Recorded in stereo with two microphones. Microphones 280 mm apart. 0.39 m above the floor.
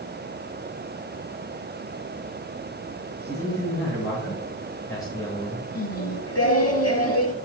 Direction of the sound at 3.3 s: 5° left (ahead or behind).